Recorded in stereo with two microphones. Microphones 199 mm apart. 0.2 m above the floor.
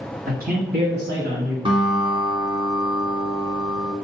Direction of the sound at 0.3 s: 45° right (ahead or behind).